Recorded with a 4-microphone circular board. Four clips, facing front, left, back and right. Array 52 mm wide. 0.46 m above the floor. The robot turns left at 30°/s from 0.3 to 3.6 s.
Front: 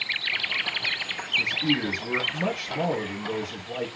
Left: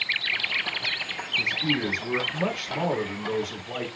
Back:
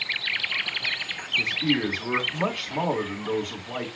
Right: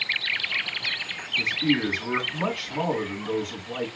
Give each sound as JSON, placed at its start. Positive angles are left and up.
{"t": 1.4, "sound": "a man speaking", "azimuth_deg": -135, "distance_m": 3.5}